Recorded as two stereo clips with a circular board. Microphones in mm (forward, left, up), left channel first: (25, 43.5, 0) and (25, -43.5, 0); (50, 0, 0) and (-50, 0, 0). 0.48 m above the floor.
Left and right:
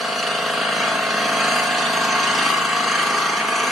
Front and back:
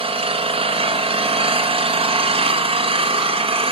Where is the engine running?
Straight behind, 3.5 m.